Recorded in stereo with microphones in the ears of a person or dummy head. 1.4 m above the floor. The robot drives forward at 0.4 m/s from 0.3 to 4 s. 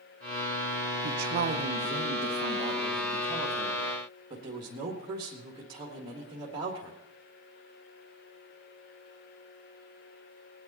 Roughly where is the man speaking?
Right.